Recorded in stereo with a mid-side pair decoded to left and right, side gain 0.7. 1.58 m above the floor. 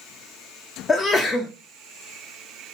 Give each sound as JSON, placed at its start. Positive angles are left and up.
{"t": 0.9, "sound": "a sneeze", "azimuth_deg": 25, "distance_m": 0.5}